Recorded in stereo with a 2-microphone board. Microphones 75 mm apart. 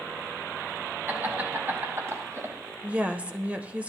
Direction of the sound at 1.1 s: 25° right (ahead or behind).